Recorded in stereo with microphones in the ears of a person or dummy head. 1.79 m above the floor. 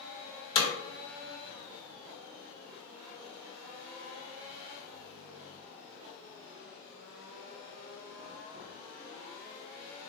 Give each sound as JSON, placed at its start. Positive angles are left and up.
{"t": 0.6, "sound": "hammering", "side_deg": 30, "distance_m": 0.8}